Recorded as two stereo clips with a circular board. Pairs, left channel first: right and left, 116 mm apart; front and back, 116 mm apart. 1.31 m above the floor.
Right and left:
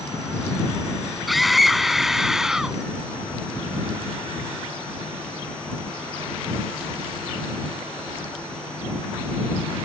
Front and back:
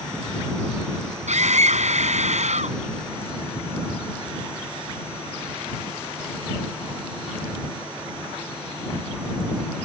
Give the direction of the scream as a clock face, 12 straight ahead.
6 o'clock.